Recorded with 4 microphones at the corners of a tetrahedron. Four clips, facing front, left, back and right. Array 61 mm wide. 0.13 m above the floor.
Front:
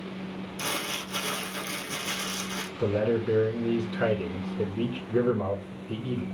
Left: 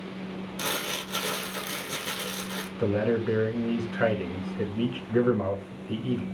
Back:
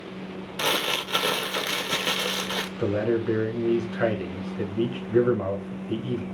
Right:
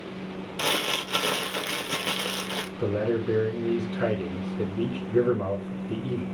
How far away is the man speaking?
About 1.1 m.